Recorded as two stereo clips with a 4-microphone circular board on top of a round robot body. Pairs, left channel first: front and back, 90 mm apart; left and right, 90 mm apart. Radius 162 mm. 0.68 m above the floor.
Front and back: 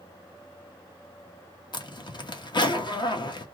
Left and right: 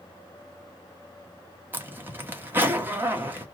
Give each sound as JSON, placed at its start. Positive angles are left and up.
{"t": 1.7, "sound": "a zipper", "azimuth_deg": -25, "distance_m": 1.1}